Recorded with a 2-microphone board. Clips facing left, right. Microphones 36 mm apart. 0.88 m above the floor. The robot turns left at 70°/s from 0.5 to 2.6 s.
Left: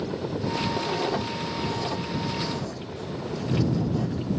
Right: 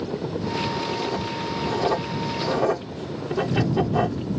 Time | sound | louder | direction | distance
0.8 | writing | even | 40° left (ahead or behind) | ?